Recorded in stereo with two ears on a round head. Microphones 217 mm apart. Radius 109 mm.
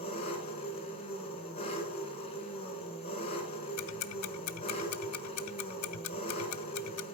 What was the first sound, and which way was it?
An engine running, 25° left (ahead or behind).